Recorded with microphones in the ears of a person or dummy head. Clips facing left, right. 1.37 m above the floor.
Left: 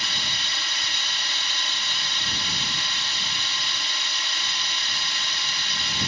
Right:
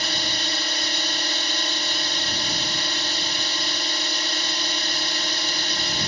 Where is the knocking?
I don't hear knocking.